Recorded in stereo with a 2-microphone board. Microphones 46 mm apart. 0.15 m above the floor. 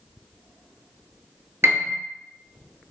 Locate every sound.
1.6 s a piano: 70° right (ahead or behind), 0.5 m